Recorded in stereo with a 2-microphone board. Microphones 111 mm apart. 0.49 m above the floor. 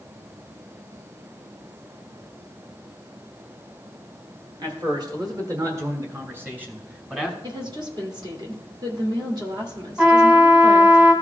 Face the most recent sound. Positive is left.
turn(degrees=-15)  # may be behind; listen again after turning